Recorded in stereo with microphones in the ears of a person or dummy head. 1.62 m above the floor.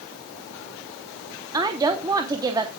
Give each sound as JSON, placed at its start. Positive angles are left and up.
{"t": 1.5, "sound": "a woman speaking", "side_deg": -20, "distance_m": 0.9}